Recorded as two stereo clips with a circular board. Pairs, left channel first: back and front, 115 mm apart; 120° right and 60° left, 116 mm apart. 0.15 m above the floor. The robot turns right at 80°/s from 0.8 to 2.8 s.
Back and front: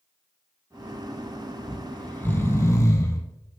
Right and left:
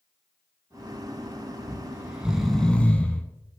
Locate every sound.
1.7 s snoring: 90° left, 1.1 m; by 3.2 s straight behind, 1.1 m